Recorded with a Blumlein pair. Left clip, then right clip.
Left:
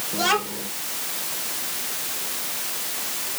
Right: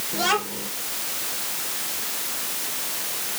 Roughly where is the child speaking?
Ahead.